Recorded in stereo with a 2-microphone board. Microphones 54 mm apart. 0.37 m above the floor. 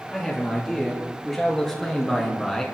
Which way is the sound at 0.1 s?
5° left (ahead or behind).